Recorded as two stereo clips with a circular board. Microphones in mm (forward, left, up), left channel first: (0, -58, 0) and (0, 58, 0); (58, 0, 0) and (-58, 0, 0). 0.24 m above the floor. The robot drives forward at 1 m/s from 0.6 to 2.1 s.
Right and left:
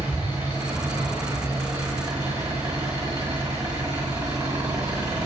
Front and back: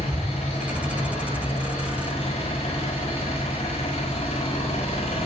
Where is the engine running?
25° left, 7 m; by 5.3 s 35° left, 5.5 m.